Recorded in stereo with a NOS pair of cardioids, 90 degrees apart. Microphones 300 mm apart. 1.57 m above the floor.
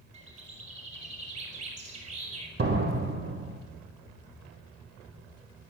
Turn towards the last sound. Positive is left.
turn(degrees=-40)